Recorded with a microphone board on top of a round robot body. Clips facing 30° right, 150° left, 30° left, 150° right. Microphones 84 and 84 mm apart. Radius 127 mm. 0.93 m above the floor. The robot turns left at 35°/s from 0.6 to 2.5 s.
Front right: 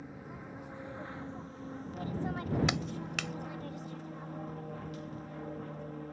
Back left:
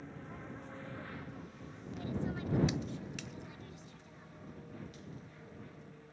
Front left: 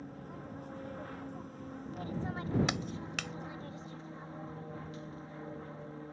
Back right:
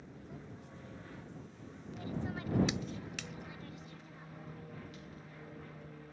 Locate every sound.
0.0 s an aircraft: 50° left; by 6.1 s 20° right
2.7 s a clap: 5° right